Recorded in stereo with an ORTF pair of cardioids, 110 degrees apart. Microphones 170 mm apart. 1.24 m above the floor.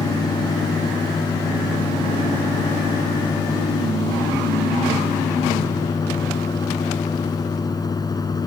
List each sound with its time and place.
0.0 s a fan: 25° left